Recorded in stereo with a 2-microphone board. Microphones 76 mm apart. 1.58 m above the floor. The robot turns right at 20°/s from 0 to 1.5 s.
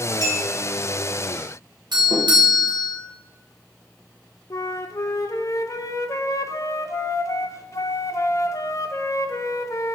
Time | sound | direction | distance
0.2 | a clink | 80° right | 3 m
1.9 | a doorbell | 75° right (ahead or behind) | 1.3 m
4.5 | a flute | 45° left (ahead or behind) | 0.5 m